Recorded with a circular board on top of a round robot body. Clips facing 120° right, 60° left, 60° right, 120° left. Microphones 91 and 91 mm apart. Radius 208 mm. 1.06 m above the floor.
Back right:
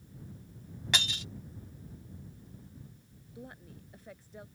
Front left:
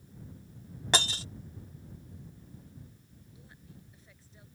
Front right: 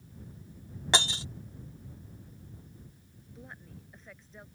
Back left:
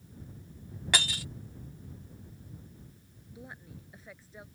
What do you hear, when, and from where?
0.9 s breaking glass: 5° left
3.4 s a woman speaking: 155° right